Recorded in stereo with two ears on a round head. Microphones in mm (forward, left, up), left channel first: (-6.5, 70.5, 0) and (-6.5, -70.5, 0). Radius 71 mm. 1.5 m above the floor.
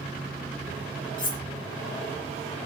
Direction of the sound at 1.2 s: 30° left (ahead or behind).